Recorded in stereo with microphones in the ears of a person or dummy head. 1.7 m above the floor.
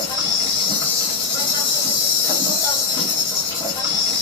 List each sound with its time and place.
0.0 s an insect: 20° left (ahead or behind), 1.2 m